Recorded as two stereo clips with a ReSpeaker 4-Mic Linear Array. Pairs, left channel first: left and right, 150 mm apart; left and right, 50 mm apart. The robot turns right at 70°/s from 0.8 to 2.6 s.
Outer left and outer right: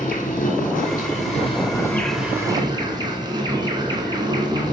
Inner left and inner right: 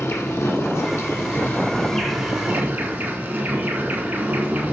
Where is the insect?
85° left, 1.4 m; by 4.7 s 145° right, 1.4 m.